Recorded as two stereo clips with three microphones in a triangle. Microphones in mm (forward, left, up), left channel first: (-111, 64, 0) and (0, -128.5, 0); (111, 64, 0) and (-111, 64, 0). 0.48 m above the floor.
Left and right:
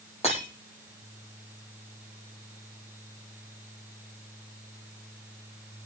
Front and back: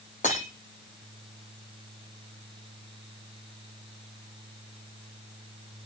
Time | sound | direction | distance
0.2 | breaking glass | 55° left | 7.5 m